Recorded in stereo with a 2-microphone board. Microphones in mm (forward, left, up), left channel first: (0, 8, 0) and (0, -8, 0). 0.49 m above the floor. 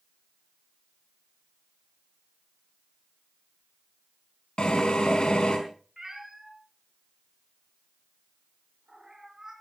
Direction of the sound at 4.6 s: 65° left (ahead or behind).